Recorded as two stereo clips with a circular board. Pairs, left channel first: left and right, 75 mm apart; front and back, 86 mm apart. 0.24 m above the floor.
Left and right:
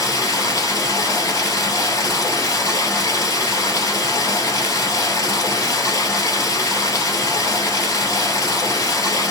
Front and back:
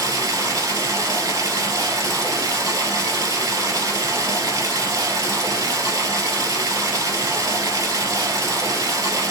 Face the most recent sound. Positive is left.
turn(degrees=135)